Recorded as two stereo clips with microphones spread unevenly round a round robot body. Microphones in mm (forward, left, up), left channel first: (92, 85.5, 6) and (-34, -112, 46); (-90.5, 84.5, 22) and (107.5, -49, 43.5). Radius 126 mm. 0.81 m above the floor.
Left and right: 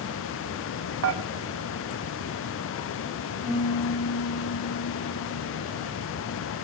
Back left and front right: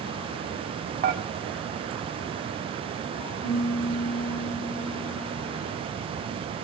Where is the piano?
130° left, 7.5 m.